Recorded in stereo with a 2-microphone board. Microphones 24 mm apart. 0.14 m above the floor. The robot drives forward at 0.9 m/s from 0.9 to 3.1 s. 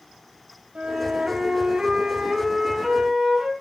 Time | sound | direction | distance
0.8 | a flute | 45° right (ahead or behind) | 1.4 m